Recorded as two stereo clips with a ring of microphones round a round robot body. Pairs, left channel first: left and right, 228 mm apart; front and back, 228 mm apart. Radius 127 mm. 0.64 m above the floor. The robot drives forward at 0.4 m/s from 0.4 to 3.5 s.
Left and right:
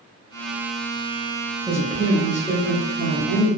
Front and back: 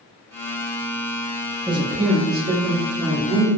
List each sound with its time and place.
1.7 s a woman speaking: 145° right, 0.6 m; by 3.5 s 175° right, 1.0 m